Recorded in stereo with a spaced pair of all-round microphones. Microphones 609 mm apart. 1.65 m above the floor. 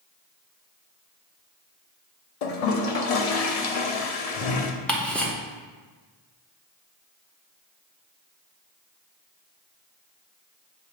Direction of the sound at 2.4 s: 75° left (ahead or behind).